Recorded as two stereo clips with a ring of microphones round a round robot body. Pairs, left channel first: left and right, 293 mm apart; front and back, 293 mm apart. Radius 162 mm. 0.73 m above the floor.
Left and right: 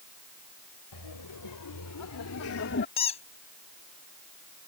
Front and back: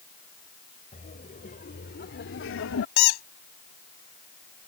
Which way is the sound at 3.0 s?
15° left.